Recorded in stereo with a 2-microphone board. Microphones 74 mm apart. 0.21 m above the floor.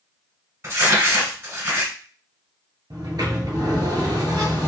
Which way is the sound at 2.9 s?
70° right (ahead or behind).